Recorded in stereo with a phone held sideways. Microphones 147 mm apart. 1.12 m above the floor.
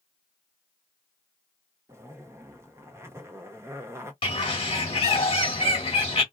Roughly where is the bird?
Left.